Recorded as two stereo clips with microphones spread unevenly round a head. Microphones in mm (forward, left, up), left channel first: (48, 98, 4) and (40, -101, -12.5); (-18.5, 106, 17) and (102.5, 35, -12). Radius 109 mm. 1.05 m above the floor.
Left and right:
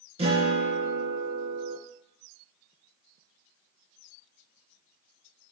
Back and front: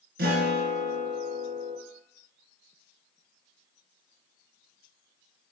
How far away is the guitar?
About 3 m.